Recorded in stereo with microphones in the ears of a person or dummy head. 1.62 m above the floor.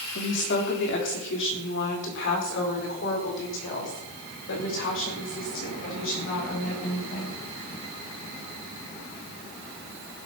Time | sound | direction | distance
0.1 | a woman speaking | 75° left (ahead or behind) | 3.5 m